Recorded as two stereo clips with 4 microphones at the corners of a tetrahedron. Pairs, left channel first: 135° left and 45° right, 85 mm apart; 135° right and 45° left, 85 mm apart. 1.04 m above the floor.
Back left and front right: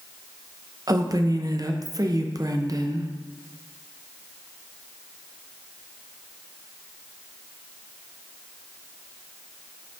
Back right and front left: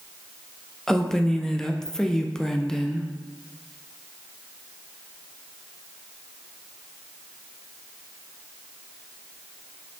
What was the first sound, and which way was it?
A woman speaking, 55° right.